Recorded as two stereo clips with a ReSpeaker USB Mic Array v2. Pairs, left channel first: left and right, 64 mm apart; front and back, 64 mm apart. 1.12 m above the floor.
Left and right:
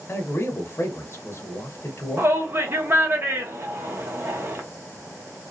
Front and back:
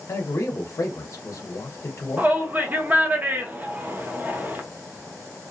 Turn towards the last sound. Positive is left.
turn(degrees=-125)